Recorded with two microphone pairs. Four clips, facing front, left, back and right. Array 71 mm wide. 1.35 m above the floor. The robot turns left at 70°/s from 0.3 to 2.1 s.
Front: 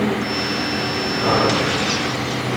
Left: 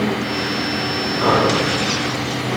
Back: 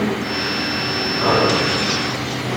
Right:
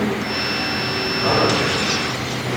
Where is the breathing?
115° left, 6.5 m; by 1.6 s 85° left, 6.5 m.